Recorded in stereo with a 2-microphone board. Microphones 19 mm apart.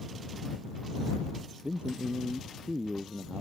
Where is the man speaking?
70° right (ahead or behind); by 3.4 s 65° right (ahead or behind).